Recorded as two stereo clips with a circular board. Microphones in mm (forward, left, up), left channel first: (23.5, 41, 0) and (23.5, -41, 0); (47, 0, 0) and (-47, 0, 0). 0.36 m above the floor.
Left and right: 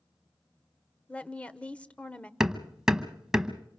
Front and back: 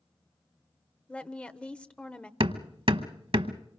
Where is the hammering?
170° right, 0.9 m.